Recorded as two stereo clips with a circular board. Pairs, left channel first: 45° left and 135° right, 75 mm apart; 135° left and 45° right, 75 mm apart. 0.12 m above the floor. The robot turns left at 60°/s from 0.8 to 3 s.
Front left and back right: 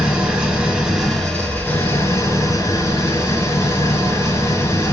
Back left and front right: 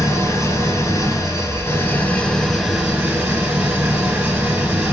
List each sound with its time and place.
0.0 s an engine running: 160° left, 1.1 m; by 4.9 s 25° left, 1.1 m